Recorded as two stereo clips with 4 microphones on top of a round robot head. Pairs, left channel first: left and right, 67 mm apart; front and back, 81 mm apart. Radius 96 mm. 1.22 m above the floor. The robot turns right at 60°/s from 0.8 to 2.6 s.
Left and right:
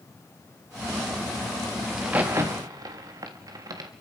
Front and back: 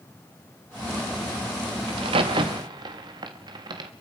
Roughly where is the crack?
Behind.